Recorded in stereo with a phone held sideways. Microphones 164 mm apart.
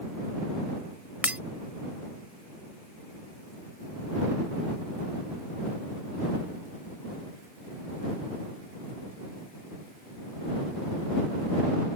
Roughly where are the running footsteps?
I don't hear running footsteps.